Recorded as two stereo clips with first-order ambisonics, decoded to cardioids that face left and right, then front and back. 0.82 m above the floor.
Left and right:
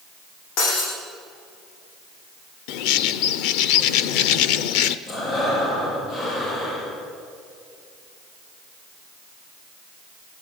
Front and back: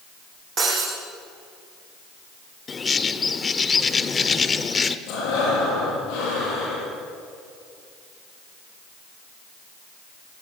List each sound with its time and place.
0.6 s breaking glass: 115° left, 9.5 m
2.7 s a bird: 75° left, 1.0 m
5.1 s breathing: 35° left, 9.5 m